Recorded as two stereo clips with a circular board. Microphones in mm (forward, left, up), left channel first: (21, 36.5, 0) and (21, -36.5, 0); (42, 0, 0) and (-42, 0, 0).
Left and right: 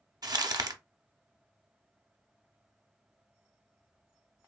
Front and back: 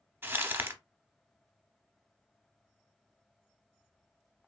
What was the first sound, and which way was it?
Crumpling, 115° right.